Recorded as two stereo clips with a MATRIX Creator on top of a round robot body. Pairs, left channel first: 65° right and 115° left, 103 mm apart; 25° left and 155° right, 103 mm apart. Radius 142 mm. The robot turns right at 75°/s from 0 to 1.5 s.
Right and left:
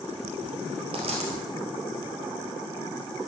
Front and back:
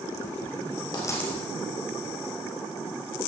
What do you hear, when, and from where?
0.9 s a dropped coin: 75° left, 2 m; by 1.4 s 110° left, 2 m